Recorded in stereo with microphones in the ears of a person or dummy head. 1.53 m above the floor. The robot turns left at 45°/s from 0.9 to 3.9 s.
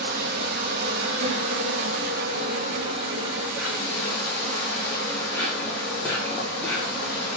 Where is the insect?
60° right, 0.8 m; by 7.4 s 165° left, 0.8 m.